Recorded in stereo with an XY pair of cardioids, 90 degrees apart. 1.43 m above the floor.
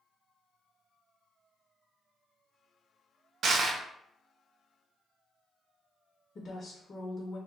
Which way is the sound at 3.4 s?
65° right.